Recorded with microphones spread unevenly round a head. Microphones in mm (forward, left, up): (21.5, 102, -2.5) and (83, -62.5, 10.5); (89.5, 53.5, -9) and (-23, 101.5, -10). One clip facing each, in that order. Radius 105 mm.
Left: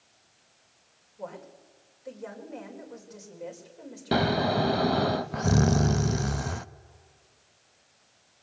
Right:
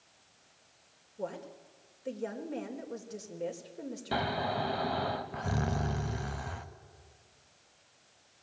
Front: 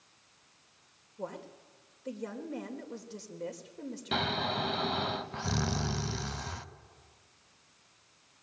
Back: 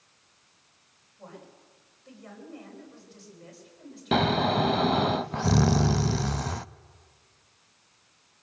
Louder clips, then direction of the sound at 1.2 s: Right 1 dB, front 6 dB; 15° right.